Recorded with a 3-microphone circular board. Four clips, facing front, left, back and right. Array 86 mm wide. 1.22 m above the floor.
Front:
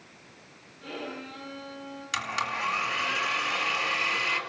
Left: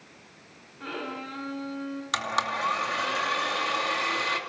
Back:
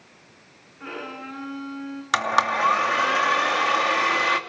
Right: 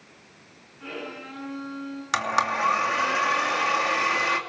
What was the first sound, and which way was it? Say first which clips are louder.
A violin: left 1 dB, back 3 dB; 145° left.